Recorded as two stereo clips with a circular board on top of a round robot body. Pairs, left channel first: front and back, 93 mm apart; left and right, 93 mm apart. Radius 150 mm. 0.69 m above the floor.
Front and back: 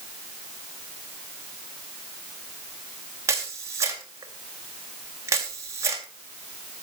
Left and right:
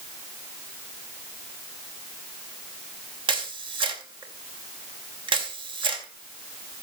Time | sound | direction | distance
3.3 | a camera shutter | 120° right | 2.5 m